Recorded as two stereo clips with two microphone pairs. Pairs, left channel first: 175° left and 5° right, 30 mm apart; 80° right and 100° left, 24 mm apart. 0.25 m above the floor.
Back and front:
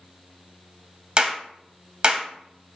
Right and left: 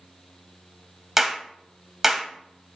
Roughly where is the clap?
Ahead left.